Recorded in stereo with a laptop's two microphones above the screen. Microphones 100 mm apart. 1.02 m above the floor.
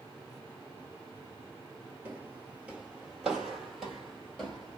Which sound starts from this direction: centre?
Footsteps, at 2.0 s.